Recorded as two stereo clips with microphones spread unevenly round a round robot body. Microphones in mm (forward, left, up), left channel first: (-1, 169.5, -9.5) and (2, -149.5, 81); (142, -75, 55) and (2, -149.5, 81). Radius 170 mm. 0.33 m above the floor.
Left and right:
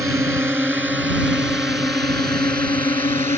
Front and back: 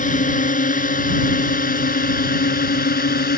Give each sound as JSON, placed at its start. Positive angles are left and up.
{"t": 0.0, "sound": "a drone", "azimuth_deg": -5}